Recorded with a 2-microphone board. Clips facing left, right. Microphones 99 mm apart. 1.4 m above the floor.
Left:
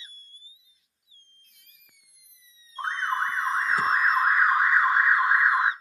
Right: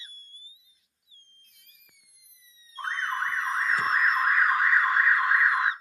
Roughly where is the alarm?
Left.